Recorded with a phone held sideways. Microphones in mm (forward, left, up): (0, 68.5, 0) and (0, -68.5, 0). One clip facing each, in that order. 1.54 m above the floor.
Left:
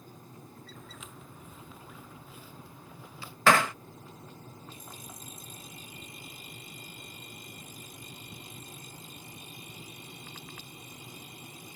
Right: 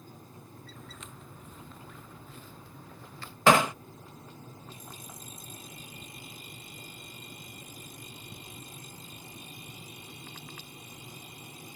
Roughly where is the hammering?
Right.